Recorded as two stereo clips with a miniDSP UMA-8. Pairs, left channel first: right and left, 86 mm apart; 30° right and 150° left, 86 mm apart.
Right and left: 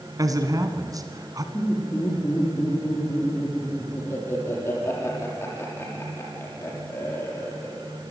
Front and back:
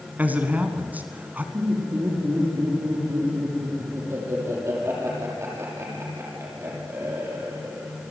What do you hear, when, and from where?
0.2 s a man speaking: 85° left, 1.5 m
1.5 s laughter: 150° right, 6.5 m